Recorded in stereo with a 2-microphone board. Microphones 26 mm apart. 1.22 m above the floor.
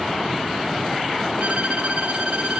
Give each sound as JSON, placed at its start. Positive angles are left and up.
{"t": 1.4, "sound": "a violin", "side_deg": -60, "distance_m": 1.1}